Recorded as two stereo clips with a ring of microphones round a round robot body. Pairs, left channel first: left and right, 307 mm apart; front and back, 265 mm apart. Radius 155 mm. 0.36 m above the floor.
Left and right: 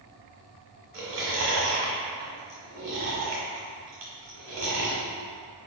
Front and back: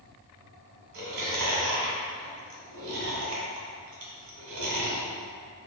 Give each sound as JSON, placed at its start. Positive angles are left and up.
{"t": 0.9, "sound": "chewing", "azimuth_deg": -135, "distance_m": 1.3}